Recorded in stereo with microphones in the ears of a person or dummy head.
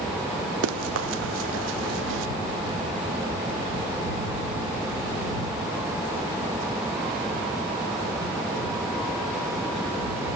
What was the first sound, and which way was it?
Running footsteps, 75° right (ahead or behind).